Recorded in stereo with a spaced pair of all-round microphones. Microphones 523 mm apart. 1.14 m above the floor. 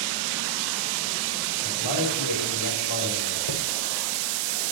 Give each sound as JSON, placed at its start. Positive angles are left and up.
{"t": 1.6, "sound": "a man speaking", "side_deg": 55, "distance_m": 5.0}
{"t": 3.5, "sound": "a chime", "side_deg": 65, "distance_m": 1.9}